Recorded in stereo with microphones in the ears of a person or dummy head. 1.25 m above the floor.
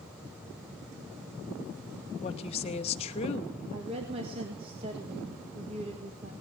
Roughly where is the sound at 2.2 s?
Left.